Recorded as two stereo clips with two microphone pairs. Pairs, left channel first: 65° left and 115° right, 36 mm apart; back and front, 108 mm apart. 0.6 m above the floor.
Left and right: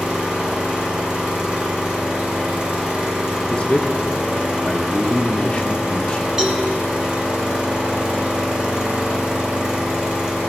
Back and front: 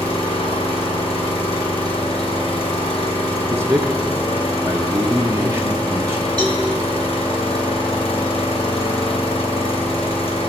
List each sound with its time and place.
0.0 s an engine running: 165° right, 1.9 m
3.5 s a man speaking: 40° left, 0.6 m
6.4 s a cowbell: 45° right, 2 m